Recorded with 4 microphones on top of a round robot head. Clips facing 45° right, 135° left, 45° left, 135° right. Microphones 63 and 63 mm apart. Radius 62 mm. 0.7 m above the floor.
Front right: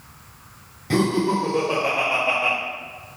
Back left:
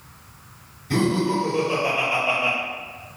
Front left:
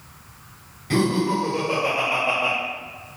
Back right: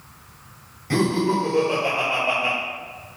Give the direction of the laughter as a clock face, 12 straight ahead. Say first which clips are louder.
Front right 1 dB, even; 2 o'clock.